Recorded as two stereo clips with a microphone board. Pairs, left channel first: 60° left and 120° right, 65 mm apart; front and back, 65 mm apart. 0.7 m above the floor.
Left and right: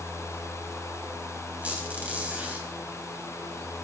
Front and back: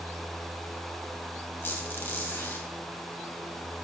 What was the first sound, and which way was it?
A squeak, 55° right.